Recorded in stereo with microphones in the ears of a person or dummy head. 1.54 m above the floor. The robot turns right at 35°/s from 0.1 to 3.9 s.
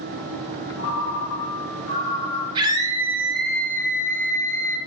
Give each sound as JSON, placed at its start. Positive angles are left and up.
{"t": 0.8, "sound": "a ringtone", "azimuth_deg": 95, "distance_m": 0.9}
{"t": 2.5, "sound": "a scream", "azimuth_deg": -30, "distance_m": 1.0}